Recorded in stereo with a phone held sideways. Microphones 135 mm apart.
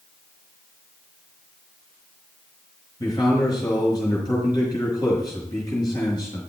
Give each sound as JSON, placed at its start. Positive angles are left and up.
{"t": 3.0, "sound": "a man speaking", "side_deg": 30, "distance_m": 5.0}